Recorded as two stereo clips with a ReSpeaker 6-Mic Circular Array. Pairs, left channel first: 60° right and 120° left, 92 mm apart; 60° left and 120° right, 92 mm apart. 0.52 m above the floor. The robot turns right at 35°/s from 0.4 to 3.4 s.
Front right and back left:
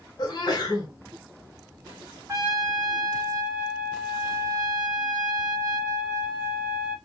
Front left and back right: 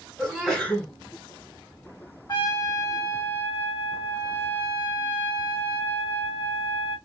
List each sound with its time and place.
0.2 s a sneeze: 30° right, 1.7 m; by 0.9 s 10° right, 1.7 m
2.3 s a trumpet: 75° left, 1.8 m; by 7.0 s 115° left, 1.8 m